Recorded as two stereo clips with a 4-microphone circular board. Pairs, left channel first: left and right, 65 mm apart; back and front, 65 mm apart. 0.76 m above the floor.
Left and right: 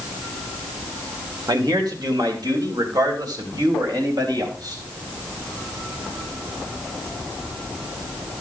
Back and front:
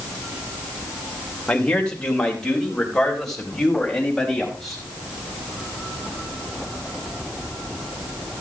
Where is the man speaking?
105° right, 2.5 m; by 4.8 s 90° right, 4.5 m.